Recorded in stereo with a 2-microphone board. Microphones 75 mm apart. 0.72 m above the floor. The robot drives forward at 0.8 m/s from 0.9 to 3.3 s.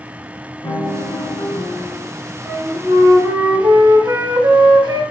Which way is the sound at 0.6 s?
65° left (ahead or behind).